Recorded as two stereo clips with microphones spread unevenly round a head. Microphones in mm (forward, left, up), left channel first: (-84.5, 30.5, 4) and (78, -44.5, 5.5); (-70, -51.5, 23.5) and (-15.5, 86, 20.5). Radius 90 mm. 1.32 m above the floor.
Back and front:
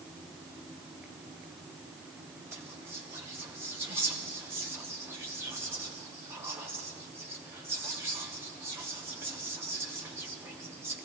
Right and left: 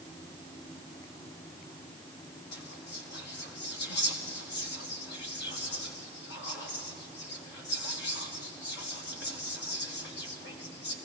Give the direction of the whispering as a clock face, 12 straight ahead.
3 o'clock.